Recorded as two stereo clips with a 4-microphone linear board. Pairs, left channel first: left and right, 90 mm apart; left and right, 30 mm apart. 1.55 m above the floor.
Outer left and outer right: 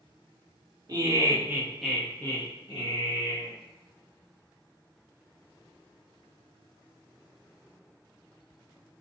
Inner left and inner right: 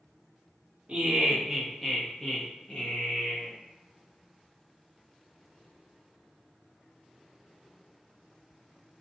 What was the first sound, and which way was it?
Laughter, 45° right (ahead or behind).